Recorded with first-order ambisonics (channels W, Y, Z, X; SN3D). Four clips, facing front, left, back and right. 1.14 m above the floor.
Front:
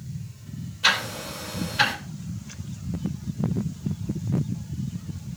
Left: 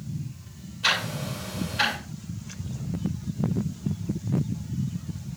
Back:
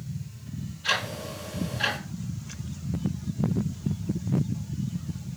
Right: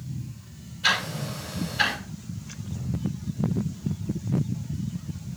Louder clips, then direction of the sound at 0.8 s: Right 1 dB, front 5 dB; 25° left.